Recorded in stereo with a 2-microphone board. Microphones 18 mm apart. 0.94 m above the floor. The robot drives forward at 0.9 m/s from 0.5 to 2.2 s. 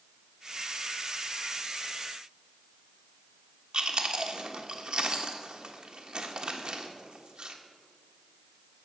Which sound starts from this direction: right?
Chewing, at 3.7 s.